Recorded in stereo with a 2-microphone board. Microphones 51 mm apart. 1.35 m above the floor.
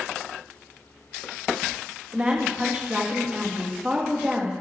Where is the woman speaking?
25° right (ahead or behind), 2.5 m.